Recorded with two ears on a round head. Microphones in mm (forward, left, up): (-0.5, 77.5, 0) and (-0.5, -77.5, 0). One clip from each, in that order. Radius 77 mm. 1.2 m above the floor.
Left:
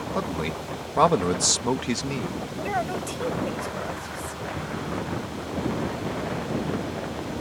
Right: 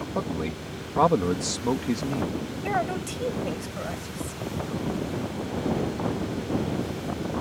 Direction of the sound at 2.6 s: 5° left (ahead or behind).